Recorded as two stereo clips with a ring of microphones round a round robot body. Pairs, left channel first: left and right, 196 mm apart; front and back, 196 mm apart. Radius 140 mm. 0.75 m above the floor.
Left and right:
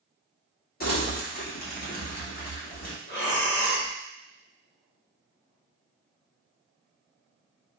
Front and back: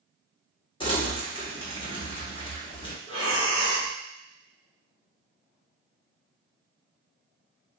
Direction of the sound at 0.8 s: 60° left.